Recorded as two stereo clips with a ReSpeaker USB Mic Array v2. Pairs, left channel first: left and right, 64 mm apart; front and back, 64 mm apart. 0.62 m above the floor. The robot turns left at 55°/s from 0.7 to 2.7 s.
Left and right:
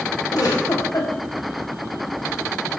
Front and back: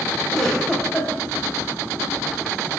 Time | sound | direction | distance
0.3 | a giggle | 85° left | 4 m